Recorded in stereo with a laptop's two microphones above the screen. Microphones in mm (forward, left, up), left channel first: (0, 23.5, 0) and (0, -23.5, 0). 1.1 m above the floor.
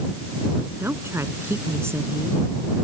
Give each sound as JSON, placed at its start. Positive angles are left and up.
{"t": 0.8, "sound": "a woman speaking", "side_deg": -65}